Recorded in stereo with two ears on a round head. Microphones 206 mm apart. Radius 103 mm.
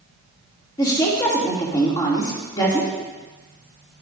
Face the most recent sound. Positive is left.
turn(degrees=20)  # may be behind; listen again after turning